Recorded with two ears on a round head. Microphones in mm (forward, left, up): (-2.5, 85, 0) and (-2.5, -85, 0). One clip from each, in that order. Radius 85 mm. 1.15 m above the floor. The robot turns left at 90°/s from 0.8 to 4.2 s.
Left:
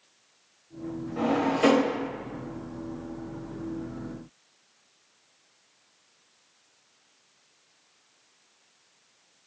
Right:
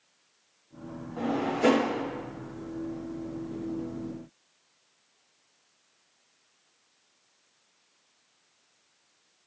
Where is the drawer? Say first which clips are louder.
Left 3 dB; 30° left (ahead or behind), 1.5 m; by 2.0 s 55° left (ahead or behind), 1.5 m.